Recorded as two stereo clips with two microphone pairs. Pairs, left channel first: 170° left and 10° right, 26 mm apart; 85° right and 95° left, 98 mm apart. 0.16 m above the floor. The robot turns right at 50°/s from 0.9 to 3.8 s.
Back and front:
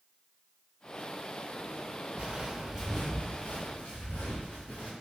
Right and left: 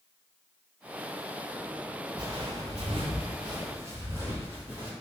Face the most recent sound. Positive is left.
turn(degrees=170)